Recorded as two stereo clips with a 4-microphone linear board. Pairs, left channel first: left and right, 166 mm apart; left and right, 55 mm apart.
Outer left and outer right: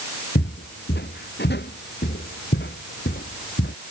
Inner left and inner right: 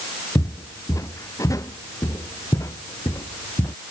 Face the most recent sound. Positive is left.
turn(degrees=85)